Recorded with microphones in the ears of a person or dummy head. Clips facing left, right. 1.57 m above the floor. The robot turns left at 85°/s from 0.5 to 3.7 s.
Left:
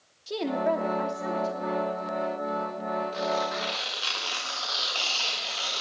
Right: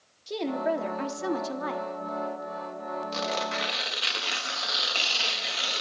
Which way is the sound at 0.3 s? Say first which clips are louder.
Left 1 dB; straight ahead.